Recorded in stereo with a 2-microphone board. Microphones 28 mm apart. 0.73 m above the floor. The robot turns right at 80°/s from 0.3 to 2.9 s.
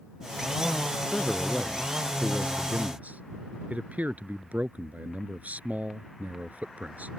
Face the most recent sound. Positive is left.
turn(degrees=-110)